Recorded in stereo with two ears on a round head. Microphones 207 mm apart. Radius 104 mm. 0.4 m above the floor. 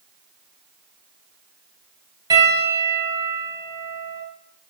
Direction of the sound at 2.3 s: 15° right (ahead or behind).